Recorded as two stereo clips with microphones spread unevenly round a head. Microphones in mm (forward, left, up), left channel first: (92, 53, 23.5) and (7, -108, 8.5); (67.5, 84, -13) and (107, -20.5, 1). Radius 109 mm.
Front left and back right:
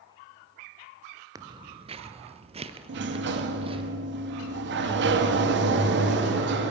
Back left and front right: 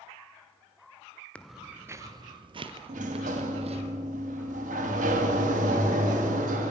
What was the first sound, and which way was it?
Footsteps, 170° right.